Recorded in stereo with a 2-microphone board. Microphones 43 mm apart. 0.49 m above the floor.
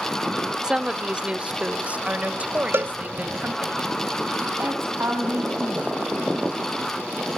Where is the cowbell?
60° right (ahead or behind), 0.5 m.